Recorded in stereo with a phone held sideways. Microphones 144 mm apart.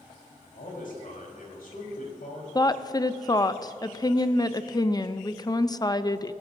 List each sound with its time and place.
0.6 s a man speaking: 75° left (ahead or behind), 4.5 m
2.5 s a woman speaking: 25° left (ahead or behind), 0.5 m